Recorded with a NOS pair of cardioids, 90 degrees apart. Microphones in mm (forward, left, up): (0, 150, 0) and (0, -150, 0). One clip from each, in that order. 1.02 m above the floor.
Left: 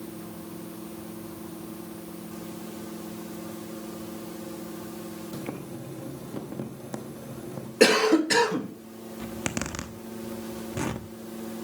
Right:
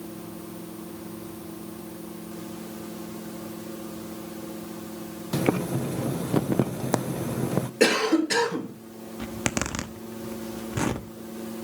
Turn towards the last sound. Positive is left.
turn(degrees=-15)